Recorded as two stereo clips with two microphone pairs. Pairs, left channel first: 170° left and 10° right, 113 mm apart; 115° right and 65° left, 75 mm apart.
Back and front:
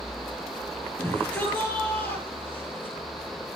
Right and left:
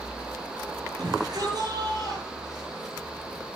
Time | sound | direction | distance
1.0 | a shout | 90° left | 7.5 m